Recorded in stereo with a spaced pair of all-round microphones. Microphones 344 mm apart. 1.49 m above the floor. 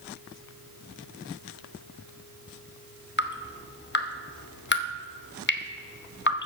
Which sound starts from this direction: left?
Dripping, at 3.2 s.